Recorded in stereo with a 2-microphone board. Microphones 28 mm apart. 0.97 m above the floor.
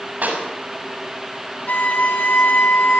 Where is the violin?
75° left (ahead or behind), 2.5 m.